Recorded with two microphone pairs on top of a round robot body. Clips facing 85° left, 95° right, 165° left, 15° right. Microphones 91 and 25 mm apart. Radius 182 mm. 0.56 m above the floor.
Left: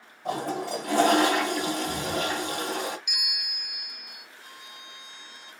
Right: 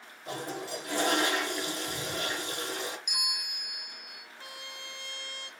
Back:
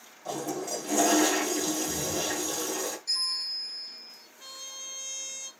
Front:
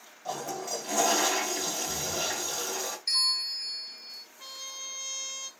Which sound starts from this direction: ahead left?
A toilet flushing, at 0.2 s.